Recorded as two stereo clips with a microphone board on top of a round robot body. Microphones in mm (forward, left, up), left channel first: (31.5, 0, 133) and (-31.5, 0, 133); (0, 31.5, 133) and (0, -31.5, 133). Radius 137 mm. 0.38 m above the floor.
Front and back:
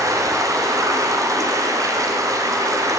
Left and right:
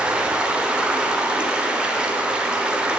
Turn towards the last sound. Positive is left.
turn(degrees=-165)